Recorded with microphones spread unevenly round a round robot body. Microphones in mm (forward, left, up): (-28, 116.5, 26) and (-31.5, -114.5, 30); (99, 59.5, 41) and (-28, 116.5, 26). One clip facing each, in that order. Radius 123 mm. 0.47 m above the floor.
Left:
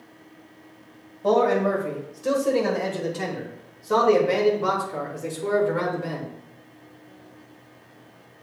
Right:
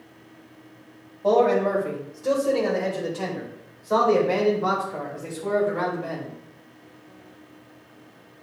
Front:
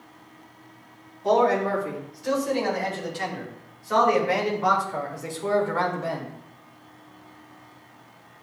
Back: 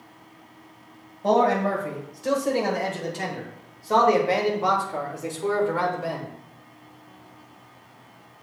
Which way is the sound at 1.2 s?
155° left.